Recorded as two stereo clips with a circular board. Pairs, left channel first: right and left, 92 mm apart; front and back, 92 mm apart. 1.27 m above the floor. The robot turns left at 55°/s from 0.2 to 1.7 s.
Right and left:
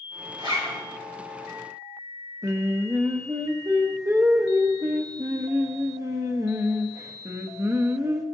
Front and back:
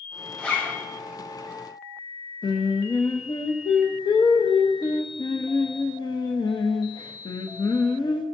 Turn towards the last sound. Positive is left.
turn(degrees=35)